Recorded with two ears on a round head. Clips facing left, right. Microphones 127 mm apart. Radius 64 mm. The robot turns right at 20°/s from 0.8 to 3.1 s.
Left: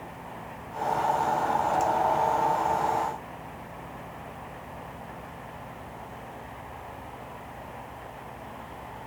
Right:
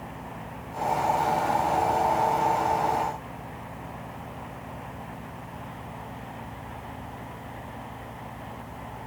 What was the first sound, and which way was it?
Only background noise.